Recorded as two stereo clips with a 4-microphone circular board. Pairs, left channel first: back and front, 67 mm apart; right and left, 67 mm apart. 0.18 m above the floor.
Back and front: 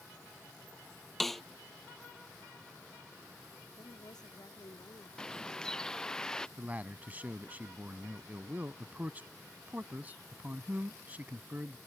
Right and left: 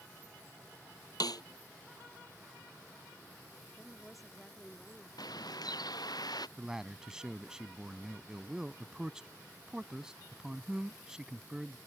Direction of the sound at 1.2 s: 95° right.